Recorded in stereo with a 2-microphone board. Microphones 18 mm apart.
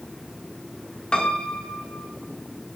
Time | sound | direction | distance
1.1 | a piano | 65° left (ahead or behind) | 1.3 m